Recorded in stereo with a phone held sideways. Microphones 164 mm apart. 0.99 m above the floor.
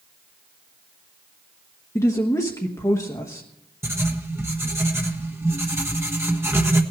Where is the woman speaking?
20° left (ahead or behind), 1.2 m.